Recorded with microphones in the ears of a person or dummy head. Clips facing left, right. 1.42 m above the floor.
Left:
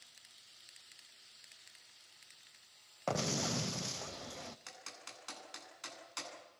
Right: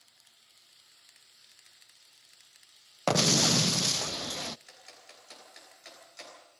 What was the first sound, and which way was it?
An explosion, 75° right (ahead or behind).